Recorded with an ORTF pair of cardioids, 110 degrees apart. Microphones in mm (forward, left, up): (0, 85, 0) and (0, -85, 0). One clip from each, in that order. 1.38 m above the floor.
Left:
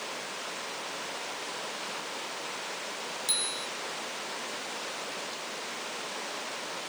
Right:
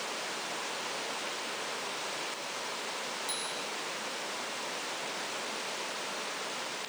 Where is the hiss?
I don't hear a hiss.